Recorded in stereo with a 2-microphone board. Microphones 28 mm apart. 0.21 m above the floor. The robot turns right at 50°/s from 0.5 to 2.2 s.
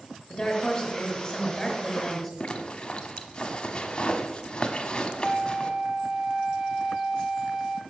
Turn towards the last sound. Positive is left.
turn(degrees=-20)  # may be behind; listen again after turning